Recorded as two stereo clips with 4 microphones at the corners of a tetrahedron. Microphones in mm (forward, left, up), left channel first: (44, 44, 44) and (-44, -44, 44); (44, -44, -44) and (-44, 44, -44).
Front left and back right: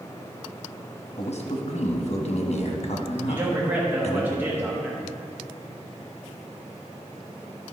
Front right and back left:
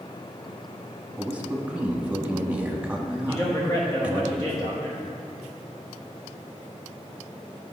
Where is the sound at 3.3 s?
75° right, 1.2 m.